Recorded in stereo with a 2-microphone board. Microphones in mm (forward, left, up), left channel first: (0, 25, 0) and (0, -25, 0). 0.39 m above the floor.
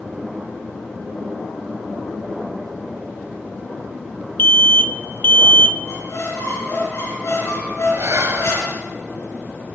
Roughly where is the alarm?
Left.